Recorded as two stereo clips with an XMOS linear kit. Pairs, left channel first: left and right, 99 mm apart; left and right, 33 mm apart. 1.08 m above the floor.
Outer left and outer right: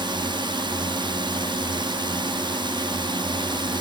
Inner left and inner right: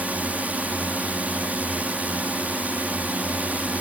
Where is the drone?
55° right (ahead or behind).